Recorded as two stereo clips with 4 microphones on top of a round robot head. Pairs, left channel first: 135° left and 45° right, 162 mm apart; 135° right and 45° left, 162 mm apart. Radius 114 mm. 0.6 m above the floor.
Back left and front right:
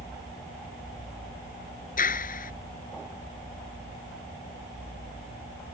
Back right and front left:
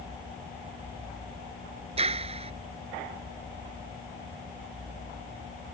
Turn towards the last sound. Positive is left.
turn(degrees=100)